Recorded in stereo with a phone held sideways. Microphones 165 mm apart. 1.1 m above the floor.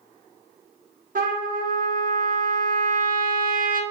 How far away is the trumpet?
About 1.5 m.